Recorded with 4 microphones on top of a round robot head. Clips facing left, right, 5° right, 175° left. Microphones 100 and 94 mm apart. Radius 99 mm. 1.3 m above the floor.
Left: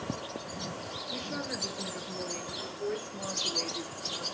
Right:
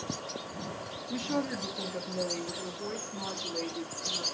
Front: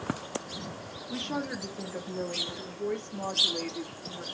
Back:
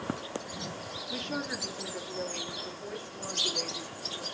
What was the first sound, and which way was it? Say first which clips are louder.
A woman speaking: right 7 dB, front 3 dB; 75° right.